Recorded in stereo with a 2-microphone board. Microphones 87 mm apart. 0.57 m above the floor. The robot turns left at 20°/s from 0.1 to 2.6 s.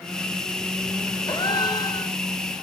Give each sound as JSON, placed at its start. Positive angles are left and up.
{"t": 1.3, "sound": "a gasp", "side_deg": 60, "distance_m": 1.8}